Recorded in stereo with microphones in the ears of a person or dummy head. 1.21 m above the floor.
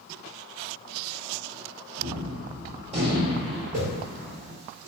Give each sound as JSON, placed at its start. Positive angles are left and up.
{"t": 2.0, "sound": "a gunshot", "side_deg": -40, "distance_m": 1.2}
{"t": 3.7, "sound": "a whoosh", "side_deg": -35, "distance_m": 1.1}